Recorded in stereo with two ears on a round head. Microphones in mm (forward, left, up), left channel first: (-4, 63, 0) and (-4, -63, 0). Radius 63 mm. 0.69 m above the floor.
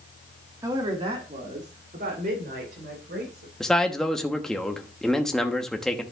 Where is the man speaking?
5° left (ahead or behind), 1.0 m.